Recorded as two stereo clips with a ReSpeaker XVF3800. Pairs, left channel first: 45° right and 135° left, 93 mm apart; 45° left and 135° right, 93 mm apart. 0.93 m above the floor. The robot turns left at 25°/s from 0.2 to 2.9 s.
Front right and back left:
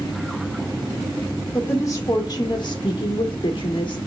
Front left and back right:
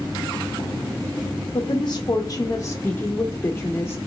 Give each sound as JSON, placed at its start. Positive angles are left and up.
{"t": 1.5, "sound": "a woman speaking", "azimuth_deg": 15, "distance_m": 0.7}